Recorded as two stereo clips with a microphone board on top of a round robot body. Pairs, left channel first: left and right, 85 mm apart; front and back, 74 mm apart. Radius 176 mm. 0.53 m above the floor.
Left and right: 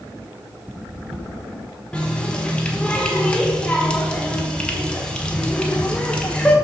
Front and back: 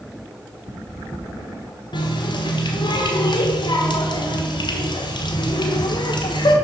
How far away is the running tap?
About 1.3 m.